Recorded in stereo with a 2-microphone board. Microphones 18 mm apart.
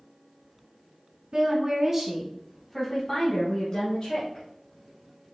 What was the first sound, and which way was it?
A woman speaking, 35° right (ahead or behind).